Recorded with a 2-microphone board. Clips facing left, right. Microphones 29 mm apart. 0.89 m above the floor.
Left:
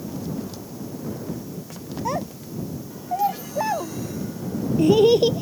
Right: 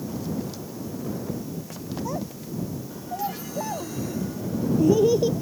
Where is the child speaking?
65° left (ahead or behind).